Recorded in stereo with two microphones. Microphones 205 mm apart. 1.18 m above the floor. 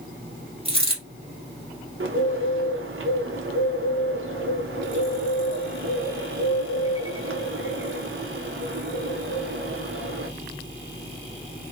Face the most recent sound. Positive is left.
turn(degrees=-75)  # may be behind; listen again after turning